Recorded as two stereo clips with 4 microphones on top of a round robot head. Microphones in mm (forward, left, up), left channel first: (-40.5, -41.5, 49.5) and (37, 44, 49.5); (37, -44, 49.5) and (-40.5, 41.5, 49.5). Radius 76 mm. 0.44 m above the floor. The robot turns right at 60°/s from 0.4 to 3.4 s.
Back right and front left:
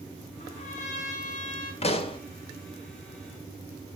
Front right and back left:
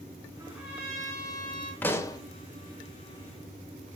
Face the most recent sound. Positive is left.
turn(degrees=-25)